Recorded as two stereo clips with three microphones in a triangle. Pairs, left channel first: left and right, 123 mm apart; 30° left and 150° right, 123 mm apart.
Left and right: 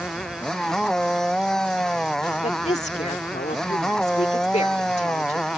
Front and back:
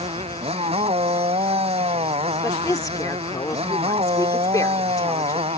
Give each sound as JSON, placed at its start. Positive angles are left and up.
{"t": 0.0, "sound": "a motorcycle", "azimuth_deg": 175}
{"t": 2.4, "sound": "a woman speaking", "azimuth_deg": 90}